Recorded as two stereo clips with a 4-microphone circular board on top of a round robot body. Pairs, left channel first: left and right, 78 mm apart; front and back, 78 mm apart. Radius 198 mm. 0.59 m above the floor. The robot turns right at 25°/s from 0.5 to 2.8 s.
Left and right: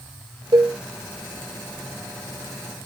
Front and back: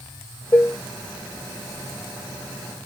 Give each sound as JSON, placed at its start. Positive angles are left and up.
{"t": 0.5, "sound": "dishes clattering", "azimuth_deg": -60, "distance_m": 0.7}